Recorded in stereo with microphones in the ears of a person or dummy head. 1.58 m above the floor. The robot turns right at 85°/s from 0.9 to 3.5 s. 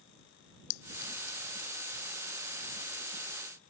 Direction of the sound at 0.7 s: 70° left (ahead or behind).